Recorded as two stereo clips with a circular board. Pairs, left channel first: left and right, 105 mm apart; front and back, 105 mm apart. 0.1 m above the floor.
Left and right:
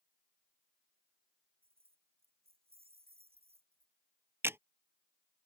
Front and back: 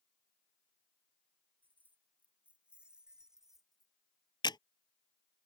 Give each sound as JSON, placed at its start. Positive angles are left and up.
{"t": 1.6, "sound": "keys jangling", "azimuth_deg": -110}
{"t": 4.4, "sound": "a camera shutter", "azimuth_deg": -30}